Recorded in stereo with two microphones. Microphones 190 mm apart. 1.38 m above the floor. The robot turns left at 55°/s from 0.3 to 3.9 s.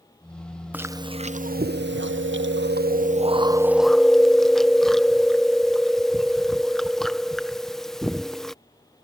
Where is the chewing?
10° right; by 8.6 s straight behind.